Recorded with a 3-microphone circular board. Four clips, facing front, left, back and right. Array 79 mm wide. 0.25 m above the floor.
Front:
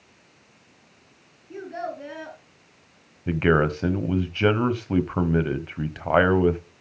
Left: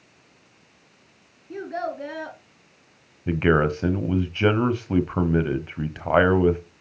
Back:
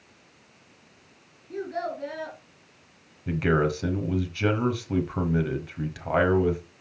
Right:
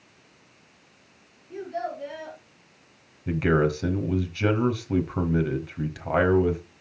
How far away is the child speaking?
About 1.8 m.